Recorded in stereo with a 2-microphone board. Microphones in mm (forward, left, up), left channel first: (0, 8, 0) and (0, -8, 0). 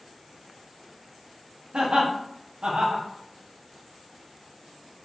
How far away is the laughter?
About 0.8 m.